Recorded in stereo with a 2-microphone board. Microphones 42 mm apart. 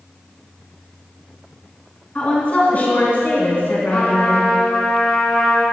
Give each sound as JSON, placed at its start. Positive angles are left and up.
{"t": 2.1, "sound": "a woman speaking", "side_deg": 35, "distance_m": 3.0}
{"t": 3.9, "sound": "a trumpet", "side_deg": 30, "distance_m": 3.5}